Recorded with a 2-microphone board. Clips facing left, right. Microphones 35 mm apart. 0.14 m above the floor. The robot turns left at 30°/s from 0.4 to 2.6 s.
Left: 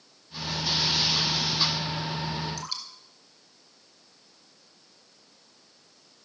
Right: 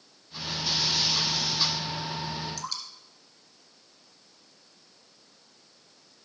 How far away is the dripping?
About 3 m.